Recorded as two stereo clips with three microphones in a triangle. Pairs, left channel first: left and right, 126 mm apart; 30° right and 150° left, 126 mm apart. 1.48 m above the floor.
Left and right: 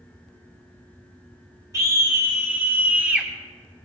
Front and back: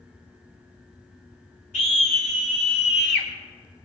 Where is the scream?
25° right, 3 m; by 3.3 s 10° right, 3 m.